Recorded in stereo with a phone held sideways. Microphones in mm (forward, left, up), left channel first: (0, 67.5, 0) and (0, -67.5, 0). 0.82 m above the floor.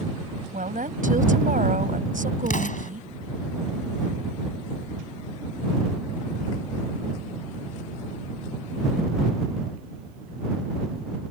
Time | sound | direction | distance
0.5 | a woman speaking | 80° right | ?
2.5 | an explosion | 75° left (ahead or behind) | ?